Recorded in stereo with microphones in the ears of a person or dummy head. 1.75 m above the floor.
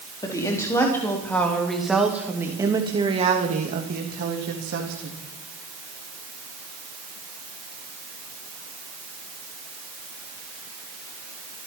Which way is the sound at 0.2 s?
20° left (ahead or behind).